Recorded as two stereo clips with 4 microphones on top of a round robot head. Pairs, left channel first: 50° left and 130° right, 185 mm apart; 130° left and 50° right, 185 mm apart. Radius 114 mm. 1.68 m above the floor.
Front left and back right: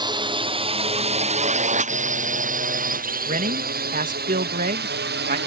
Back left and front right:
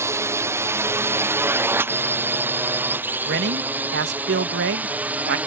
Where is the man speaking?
80° right.